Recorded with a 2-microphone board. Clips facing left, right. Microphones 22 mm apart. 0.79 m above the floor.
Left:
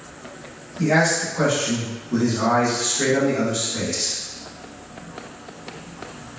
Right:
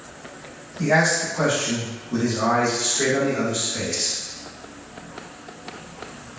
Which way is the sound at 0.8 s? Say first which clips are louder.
Even; 5° left (ahead or behind).